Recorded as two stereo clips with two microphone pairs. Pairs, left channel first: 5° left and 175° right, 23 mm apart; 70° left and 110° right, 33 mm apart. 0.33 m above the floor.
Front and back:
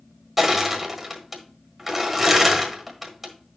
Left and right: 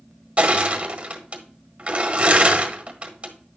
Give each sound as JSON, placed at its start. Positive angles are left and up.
{"t": 0.4, "sound": "crushing", "azimuth_deg": -95, "distance_m": 1.5}